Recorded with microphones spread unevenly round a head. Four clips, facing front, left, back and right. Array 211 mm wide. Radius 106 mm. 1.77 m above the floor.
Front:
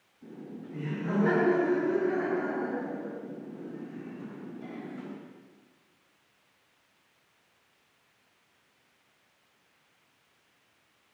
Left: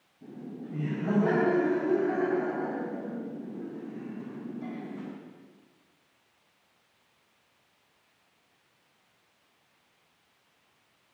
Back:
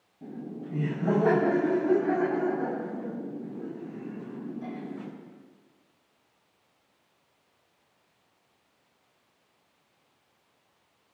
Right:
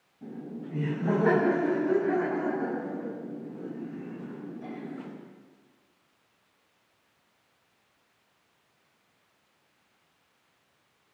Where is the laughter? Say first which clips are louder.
Right 2 dB, back 5 dB; 165° right, 5.5 m; by 5.1 s 140° left, 9 m.